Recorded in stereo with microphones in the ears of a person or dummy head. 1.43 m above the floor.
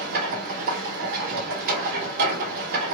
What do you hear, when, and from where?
0.0 s a machine running: 55° right (ahead or behind), 1.0 m